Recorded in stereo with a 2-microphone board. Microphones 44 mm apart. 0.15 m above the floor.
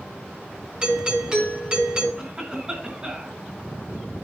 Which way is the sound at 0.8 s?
25° right (ahead or behind).